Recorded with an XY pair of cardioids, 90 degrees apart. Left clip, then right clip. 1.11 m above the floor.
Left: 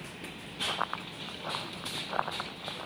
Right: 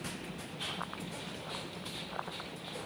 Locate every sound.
0.7 s running footsteps: 65° left